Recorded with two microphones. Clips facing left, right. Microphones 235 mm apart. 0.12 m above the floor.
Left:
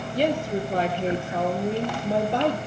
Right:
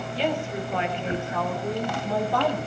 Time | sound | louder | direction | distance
0.1 | a woman speaking | left 4 dB | 45° left (ahead or behind) | 3 m